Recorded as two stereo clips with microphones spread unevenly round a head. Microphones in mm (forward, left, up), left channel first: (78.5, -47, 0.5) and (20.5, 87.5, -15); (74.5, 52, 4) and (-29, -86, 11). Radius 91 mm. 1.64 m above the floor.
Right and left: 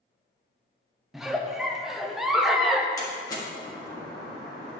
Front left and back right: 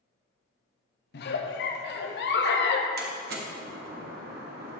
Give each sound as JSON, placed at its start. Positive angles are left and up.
{"t": 1.1, "sound": "a giggle", "azimuth_deg": 25, "distance_m": 0.9}
{"t": 3.0, "sound": "a door slam", "azimuth_deg": -130, "distance_m": 1.4}